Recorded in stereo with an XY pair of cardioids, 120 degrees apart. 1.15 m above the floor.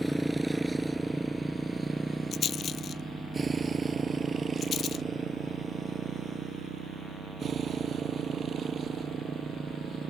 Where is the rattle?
45° left.